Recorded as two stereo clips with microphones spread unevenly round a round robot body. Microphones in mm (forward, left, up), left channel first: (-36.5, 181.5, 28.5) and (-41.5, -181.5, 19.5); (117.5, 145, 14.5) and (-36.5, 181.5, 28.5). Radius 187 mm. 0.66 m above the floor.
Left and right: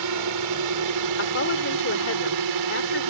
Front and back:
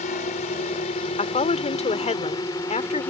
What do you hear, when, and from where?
0.0 s a drone: 55° right; by 3.1 s 90° right
1.2 s a woman speaking: 30° left